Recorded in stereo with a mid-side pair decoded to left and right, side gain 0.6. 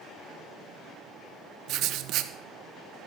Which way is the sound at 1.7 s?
60° right.